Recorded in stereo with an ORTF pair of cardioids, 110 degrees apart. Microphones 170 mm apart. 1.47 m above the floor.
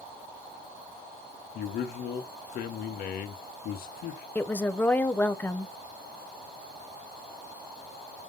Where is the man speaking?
60° left, 1.1 m.